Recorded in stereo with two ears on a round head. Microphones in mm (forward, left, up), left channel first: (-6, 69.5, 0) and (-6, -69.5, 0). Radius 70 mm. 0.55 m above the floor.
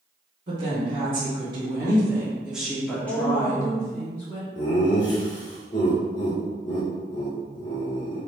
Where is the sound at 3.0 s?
45° left (ahead or behind), 1.9 m.